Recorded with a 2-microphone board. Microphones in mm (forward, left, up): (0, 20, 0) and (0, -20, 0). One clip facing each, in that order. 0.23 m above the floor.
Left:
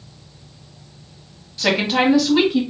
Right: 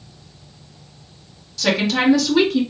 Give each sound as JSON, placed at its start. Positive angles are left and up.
{"t": 1.6, "sound": "a woman speaking", "side_deg": 25, "distance_m": 1.1}